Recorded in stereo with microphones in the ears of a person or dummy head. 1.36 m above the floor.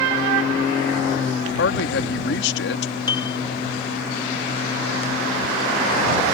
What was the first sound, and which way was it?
A man speaking, 75° left (ahead or behind).